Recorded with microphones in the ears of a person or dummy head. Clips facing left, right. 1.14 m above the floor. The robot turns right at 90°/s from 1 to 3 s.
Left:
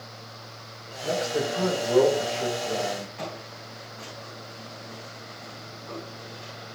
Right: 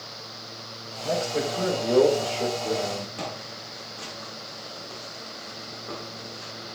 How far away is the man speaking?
About 4.5 m.